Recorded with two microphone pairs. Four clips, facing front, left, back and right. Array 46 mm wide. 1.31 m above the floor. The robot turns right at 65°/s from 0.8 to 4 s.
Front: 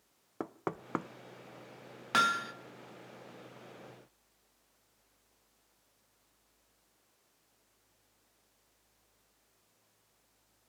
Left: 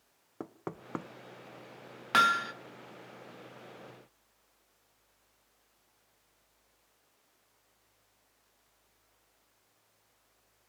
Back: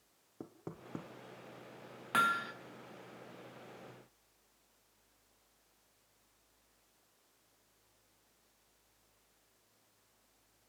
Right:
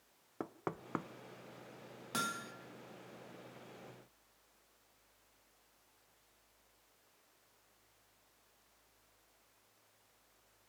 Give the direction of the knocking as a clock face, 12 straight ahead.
12 o'clock.